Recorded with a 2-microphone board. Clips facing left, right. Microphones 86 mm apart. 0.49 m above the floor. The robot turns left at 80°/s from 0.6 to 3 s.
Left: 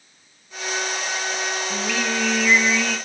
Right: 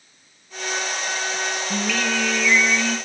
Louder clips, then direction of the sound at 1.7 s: Right 2 dB; 175° right.